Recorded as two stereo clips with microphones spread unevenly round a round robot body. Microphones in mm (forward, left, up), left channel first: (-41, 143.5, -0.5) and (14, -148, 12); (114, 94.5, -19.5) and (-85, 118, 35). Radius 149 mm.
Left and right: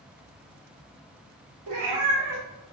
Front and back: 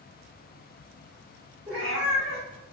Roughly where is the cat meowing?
Right.